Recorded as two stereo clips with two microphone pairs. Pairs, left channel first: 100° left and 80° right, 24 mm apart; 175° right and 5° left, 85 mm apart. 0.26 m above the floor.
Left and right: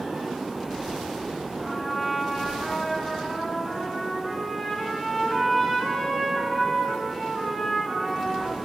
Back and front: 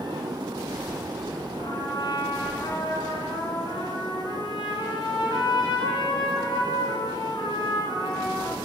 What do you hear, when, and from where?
1.6 s a trumpet: 170° left, 3.5 m